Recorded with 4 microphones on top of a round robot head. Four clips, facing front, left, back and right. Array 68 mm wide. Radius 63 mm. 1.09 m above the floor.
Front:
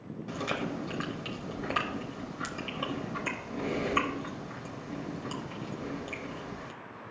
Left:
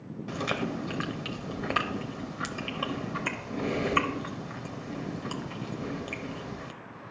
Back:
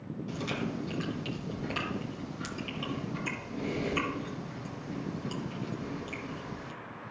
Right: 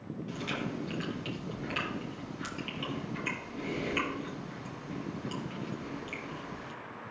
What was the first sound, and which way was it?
Chewing, 70° left.